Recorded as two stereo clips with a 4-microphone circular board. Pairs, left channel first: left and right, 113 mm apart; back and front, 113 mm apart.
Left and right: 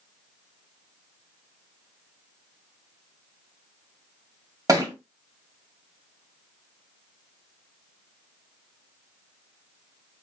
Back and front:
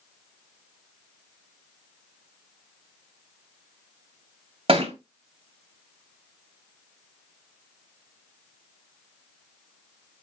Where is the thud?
35° right, 1.6 m.